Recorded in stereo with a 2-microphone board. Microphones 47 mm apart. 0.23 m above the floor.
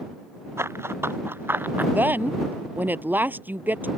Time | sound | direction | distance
0.6 | running footsteps | 60° right (ahead or behind) | ?
1.9 | a woman speaking | 40° right (ahead or behind) | ?